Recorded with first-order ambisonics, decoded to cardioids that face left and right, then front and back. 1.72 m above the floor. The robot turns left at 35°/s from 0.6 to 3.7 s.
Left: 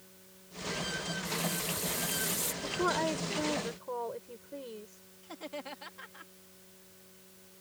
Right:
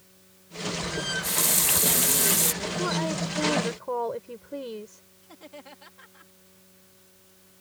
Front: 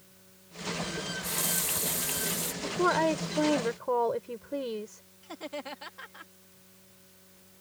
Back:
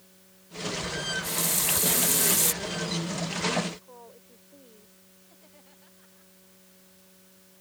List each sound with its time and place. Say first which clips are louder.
1.0 s a running tap: right 7 dB, back 4 dB; 85° right; by 2.5 s 135° right
2.6 s a woman speaking: right 2 dB, front 6 dB; 10° left; by 5.0 s 25° right
5.2 s laughter: left 4 dB, front 21 dB; 15° left